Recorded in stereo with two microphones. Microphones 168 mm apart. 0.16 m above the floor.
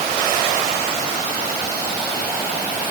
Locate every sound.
Only background noise.